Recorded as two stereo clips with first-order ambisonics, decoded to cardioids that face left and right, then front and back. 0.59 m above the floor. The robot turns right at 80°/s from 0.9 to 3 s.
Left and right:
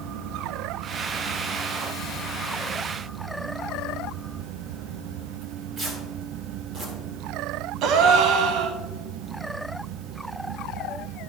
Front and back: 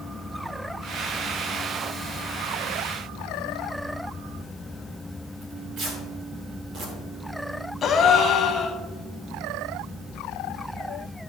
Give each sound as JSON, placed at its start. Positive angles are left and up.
{"t": 5.4, "sound": "tearing paper", "azimuth_deg": -145, "distance_m": 2.5}
{"t": 7.8, "sound": "a gasp", "azimuth_deg": -60, "distance_m": 0.8}